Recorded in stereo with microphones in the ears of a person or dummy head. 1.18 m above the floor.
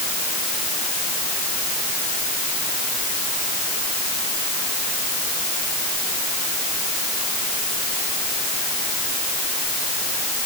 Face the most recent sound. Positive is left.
No sound to turn to.